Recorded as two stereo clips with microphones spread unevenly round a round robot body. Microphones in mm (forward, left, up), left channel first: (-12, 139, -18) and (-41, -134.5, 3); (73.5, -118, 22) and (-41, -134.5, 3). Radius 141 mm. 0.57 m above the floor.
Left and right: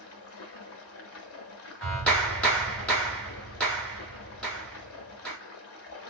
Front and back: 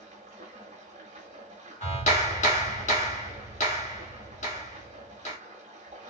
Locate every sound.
0.0 s running water: 125° left, 0.9 m
1.8 s a clap: straight ahead, 1.4 m